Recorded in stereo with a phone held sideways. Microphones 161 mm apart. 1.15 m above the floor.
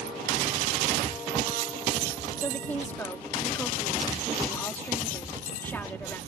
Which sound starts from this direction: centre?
A woman speaking, at 2.4 s.